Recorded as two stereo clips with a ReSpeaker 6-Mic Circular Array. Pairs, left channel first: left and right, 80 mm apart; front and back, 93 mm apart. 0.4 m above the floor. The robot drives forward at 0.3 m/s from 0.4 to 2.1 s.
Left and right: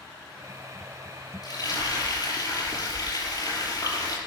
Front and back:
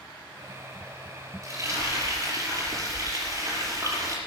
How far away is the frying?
About 5.5 m.